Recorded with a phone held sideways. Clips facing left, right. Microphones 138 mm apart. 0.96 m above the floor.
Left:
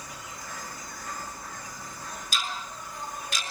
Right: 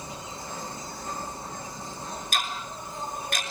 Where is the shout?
I don't hear a shout.